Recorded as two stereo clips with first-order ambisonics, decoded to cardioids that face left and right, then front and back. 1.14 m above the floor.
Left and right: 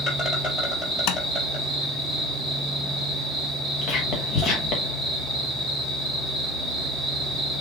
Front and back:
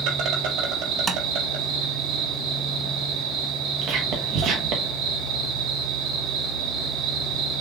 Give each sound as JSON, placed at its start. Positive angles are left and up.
{"t": 0.0, "sound": "an insect", "azimuth_deg": 160, "distance_m": 4.0}
{"t": 1.1, "sound": "tapping", "azimuth_deg": 110, "distance_m": 0.6}
{"t": 3.8, "sound": "whispering", "azimuth_deg": 145, "distance_m": 1.1}